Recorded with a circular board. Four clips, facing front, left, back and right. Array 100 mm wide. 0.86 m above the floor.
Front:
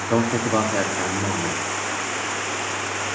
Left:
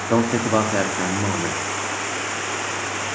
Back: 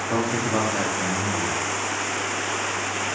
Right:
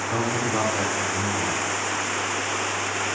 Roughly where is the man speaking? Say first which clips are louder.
Left 7 dB, front 4 dB; left.